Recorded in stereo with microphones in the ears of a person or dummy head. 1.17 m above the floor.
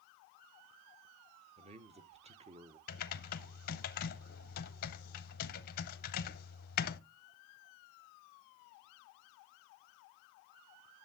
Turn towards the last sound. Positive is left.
turn(degrees=50)  # may be behind; listen again after turning